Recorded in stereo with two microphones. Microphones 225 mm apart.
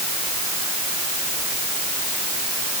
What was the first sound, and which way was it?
Only background noise.